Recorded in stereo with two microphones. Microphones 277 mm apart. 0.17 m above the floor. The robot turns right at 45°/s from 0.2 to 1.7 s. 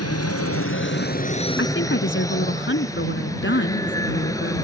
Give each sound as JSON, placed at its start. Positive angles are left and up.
{"t": 0.0, "sound": "an aircraft", "azimuth_deg": 100}
{"t": 1.6, "sound": "a woman speaking", "side_deg": 45}